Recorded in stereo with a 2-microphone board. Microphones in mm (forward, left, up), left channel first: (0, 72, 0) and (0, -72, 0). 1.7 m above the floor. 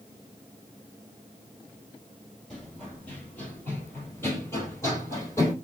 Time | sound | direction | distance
2.5 | running footsteps | 5° left (ahead or behind) | 1.8 m